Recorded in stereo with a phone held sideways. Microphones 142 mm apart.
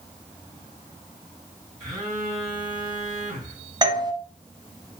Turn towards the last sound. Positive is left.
turn(degrees=-30)  # may be behind; listen again after turning